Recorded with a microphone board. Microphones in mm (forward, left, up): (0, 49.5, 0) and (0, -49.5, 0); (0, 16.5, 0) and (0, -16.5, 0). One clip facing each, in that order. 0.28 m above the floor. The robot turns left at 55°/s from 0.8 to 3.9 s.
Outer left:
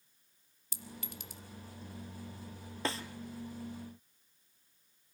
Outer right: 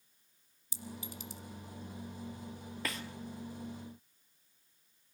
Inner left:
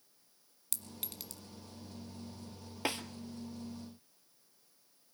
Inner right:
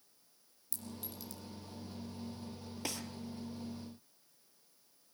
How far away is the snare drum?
About 1.3 m.